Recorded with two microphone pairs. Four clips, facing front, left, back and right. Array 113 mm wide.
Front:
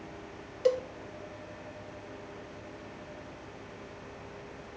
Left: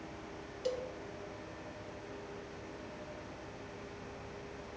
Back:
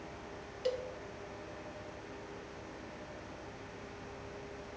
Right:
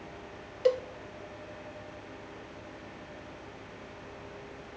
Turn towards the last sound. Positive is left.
turn(degrees=-55)